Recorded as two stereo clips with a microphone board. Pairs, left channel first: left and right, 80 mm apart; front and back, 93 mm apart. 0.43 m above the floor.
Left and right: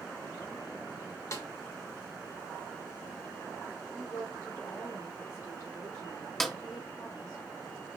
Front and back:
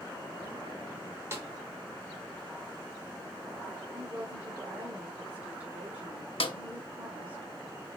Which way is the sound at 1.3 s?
125° left.